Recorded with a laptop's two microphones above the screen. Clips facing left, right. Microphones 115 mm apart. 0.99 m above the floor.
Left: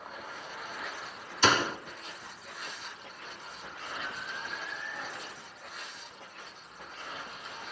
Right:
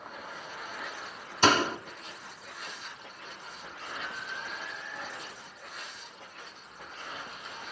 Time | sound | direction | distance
1.4 | a door slam | 45° right (ahead or behind) | 1.4 m
4.0 | an alarm | 40° right (ahead or behind) | 9 m